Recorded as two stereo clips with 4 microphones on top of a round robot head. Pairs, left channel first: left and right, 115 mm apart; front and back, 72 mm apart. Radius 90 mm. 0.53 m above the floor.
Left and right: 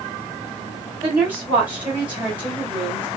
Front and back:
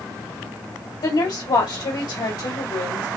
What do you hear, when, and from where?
1.0 s a woman speaking: 15° right, 1.8 m